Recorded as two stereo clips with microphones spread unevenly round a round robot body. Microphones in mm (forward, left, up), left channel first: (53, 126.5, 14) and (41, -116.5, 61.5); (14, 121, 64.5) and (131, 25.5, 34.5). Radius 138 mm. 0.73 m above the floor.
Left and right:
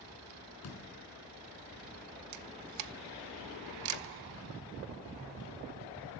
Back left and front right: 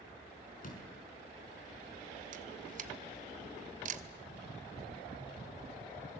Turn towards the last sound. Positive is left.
turn(degrees=-80)